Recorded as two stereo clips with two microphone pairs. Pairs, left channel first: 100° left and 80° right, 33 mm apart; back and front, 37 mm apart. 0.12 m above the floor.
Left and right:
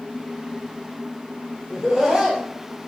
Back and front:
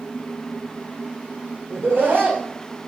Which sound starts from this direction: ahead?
Laughter, at 1.7 s.